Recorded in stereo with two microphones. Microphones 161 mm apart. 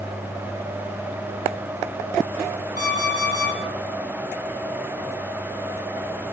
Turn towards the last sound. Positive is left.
turn(degrees=70)  # may be behind; listen again after turning